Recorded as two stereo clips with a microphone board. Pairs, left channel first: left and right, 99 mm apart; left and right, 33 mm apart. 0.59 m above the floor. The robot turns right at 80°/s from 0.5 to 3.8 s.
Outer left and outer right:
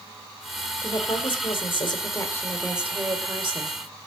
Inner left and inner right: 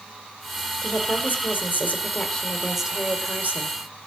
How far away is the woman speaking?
About 1.7 m.